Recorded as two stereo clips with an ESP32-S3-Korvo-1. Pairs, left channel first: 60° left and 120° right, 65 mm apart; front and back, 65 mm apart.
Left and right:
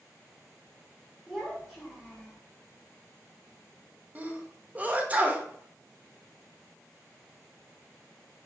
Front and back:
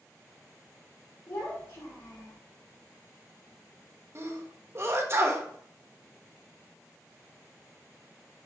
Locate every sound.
1.3 s a child speaking: 35° right, 1.9 m; by 2.4 s 10° right, 0.9 m
4.2 s a sneeze: 175° right, 0.6 m